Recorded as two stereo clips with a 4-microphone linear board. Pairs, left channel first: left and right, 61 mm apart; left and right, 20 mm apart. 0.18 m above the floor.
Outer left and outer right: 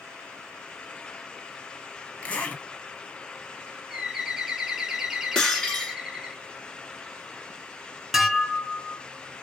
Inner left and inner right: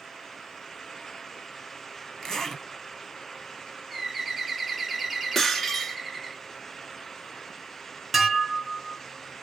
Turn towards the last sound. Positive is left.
turn(degrees=-5)  # may be behind; listen again after turning